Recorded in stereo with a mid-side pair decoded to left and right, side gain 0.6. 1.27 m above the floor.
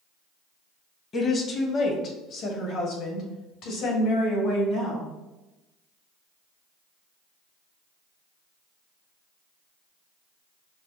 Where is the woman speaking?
35° left, 1.0 m; by 5.1 s 75° left, 3.5 m.